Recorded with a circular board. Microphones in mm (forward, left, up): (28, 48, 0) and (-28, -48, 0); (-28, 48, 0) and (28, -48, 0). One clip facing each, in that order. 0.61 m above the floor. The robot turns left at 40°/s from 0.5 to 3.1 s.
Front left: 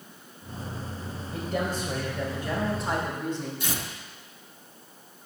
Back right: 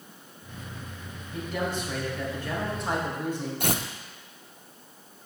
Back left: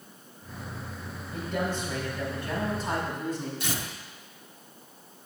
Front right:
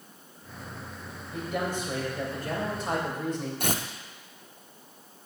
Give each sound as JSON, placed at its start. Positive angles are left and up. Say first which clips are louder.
{"t": 1.3, "sound": "a man speaking", "louder": "front left 1 dB, even", "azimuth_deg": 30, "distance_m": 2.5}
{"t": 3.6, "sound": "tearing paper", "louder": "back right 5 dB, front right 3 dB", "azimuth_deg": -95, "distance_m": 0.6}